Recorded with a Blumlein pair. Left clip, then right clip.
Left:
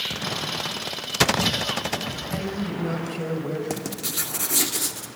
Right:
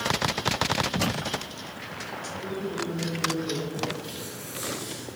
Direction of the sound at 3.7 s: 50° left.